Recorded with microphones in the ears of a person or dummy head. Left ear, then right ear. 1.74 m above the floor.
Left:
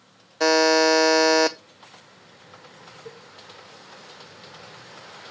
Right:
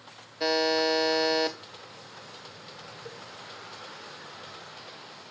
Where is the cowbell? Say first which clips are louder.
Left 2 dB; 10° right (ahead or behind), 1.2 m.